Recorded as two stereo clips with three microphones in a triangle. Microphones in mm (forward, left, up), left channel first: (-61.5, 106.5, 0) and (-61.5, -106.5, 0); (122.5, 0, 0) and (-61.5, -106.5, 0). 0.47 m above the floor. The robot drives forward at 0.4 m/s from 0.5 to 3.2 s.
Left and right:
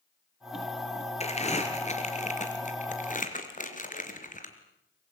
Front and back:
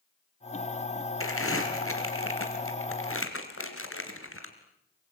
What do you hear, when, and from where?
1.2 s crumpling: 30° left, 4 m; by 4.5 s 40° left, 3 m